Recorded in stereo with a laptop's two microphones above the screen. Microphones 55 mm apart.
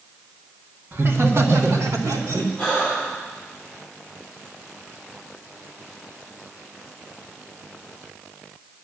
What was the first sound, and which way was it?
Laughter, 35° right (ahead or behind).